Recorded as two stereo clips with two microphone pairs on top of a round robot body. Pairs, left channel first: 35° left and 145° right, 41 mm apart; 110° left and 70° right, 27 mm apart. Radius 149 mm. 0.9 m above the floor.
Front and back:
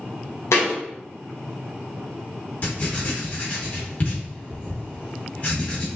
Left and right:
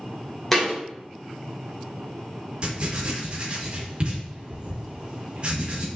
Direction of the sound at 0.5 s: 30° left.